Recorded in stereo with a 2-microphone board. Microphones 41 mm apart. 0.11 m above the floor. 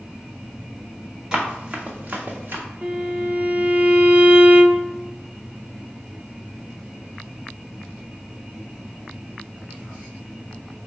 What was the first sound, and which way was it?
Running footsteps, 15° right (ahead or behind).